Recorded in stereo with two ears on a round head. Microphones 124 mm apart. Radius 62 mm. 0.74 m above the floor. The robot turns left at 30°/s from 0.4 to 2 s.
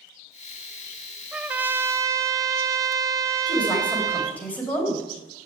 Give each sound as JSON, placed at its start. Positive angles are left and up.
{"t": 1.3, "sound": "a trumpet", "side_deg": -5, "distance_m": 0.7}
{"t": 3.5, "sound": "a woman speaking", "side_deg": 10, "distance_m": 4.0}